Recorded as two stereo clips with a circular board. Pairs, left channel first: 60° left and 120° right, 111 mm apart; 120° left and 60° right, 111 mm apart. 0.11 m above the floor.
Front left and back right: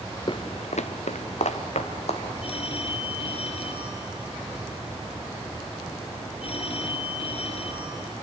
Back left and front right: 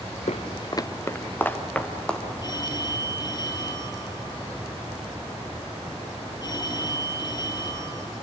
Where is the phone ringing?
75° left, 1.9 m.